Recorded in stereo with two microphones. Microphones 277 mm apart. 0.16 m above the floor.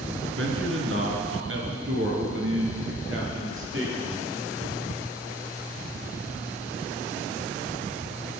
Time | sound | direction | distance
0.4 | a man speaking | 50° right (ahead or behind) | 2.5 m